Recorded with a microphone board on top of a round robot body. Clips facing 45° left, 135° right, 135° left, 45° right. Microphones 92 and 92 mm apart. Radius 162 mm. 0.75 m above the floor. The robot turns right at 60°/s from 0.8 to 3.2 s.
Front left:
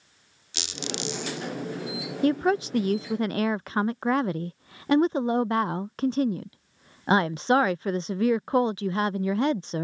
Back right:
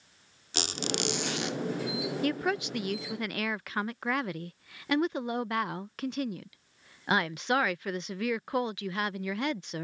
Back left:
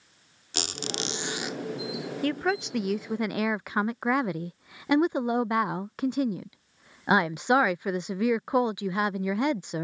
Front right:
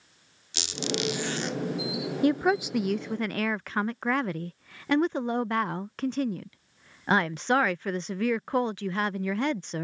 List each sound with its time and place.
0.5 s a squeak: straight behind; by 1.6 s 135° right
2.2 s a woman speaking: 10° left; by 9.8 s 70° left